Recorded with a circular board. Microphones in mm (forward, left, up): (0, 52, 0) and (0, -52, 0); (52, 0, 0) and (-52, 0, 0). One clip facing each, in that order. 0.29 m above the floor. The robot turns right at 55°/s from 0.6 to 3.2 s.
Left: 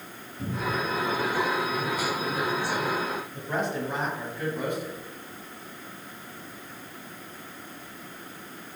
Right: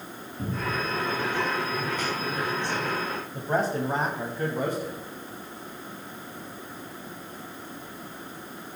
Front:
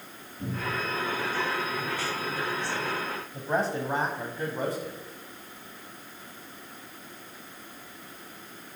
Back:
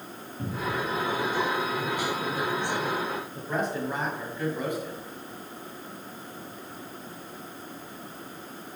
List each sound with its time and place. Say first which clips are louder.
0.4 s a cupboard door: left 1 dB, back 2 dB; 135° right, 2.5 m; by 0.8 s 120° right, 2.5 m
3.3 s a man speaking: right 5 dB, front 4 dB; 50° right, 1.4 m